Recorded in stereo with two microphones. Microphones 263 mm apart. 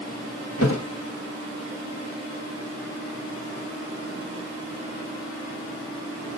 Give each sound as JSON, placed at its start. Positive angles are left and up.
{"t": 0.6, "sound": "a thud", "side_deg": 60, "distance_m": 2.5}